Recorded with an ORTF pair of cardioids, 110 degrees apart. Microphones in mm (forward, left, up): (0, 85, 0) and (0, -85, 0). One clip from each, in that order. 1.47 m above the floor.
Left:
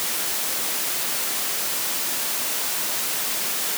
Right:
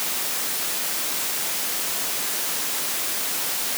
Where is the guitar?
No guitar in this recording.